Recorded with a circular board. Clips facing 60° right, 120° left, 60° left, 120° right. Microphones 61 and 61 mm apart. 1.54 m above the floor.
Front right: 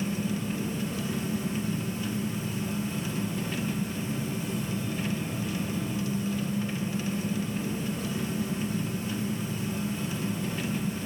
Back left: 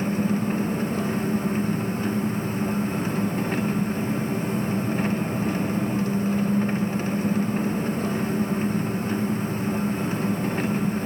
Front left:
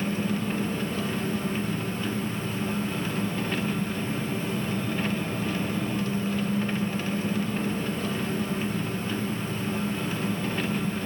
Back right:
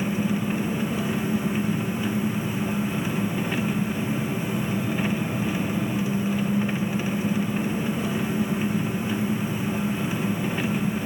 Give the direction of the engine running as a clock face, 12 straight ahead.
7 o'clock.